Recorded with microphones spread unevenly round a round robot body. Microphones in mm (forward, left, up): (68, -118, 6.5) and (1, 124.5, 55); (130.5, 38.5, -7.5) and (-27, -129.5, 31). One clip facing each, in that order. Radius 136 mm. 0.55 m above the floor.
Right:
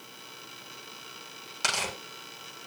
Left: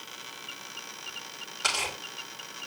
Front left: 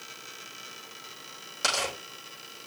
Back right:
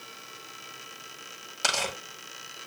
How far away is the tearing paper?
About 7.5 m.